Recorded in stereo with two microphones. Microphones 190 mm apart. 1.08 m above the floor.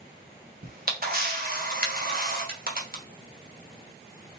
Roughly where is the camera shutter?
Right.